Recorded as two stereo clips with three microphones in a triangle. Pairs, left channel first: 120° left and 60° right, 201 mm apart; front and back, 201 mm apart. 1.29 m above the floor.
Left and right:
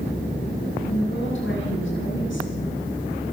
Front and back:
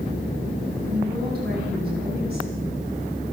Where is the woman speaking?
140° left, 10 m.